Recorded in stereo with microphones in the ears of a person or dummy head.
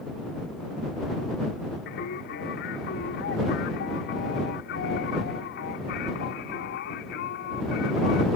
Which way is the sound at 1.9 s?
55° left (ahead or behind).